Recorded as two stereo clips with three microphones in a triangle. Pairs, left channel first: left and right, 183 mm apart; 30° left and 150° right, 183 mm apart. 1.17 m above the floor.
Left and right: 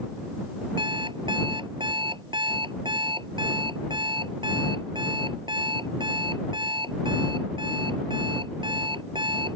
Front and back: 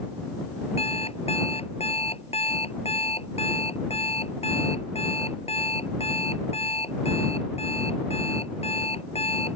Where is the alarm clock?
25° right.